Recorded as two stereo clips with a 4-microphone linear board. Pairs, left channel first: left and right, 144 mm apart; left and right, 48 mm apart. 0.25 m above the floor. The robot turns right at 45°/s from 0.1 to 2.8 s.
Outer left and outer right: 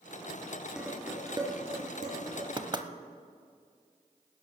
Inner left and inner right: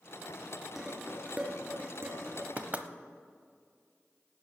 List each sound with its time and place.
0.8 s dishes clattering: 5° right (ahead or behind), 2.5 m; by 2.5 s 70° right (ahead or behind), 2.5 m
2.6 s knocking: 35° right (ahead or behind), 0.8 m; by 2.9 s 30° right (ahead or behind), 0.8 m